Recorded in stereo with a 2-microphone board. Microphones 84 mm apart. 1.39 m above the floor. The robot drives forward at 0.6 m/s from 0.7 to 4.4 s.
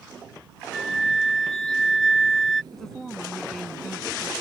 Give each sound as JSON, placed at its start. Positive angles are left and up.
{"t": 0.7, "sound": "a flute", "side_deg": 0}
{"t": 2.7, "sound": "a woman speaking", "side_deg": 5}